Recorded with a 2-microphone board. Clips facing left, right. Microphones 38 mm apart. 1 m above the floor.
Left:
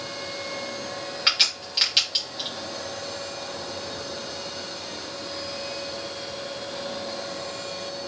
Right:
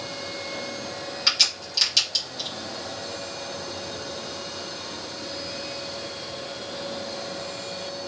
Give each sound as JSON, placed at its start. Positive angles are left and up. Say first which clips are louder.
{"t": 1.3, "sound": "a crack", "louder": "left 1 dB", "side_deg": 30, "distance_m": 2.5}